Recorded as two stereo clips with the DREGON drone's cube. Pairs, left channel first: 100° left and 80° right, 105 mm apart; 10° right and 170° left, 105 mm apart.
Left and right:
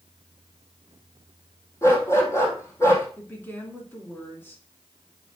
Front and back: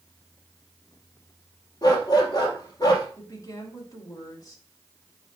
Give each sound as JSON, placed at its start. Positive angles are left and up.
{"t": 1.8, "sound": "a dog barking", "azimuth_deg": 40, "distance_m": 2.5}
{"t": 3.2, "sound": "a woman speaking", "azimuth_deg": 35, "distance_m": 2.5}